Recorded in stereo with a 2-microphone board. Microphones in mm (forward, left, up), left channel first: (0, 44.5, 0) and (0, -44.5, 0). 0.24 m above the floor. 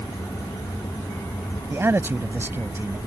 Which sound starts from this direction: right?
A man speaking, at 1.7 s.